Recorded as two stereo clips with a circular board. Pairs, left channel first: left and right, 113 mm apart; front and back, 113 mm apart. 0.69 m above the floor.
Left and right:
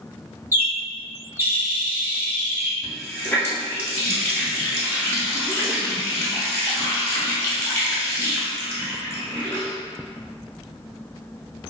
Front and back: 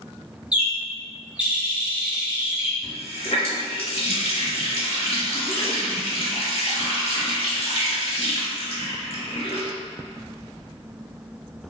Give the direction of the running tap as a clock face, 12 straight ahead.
11 o'clock.